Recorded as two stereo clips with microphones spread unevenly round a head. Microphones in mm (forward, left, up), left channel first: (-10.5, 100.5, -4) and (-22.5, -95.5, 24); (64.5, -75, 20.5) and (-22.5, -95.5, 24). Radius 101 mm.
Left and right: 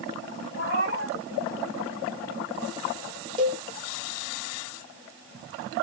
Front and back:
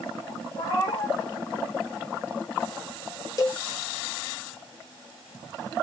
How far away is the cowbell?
About 0.6 m.